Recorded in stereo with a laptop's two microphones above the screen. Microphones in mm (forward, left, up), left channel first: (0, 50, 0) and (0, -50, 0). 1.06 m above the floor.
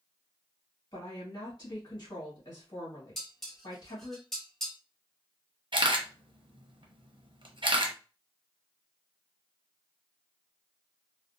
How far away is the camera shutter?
About 0.6 m.